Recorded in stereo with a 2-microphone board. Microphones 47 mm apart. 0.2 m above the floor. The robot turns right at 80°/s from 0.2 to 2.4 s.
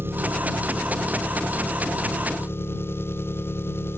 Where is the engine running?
55° right; by 4.0 s 120° left.